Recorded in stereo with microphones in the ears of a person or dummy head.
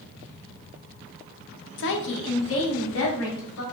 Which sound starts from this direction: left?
A woman speaking, at 1.8 s.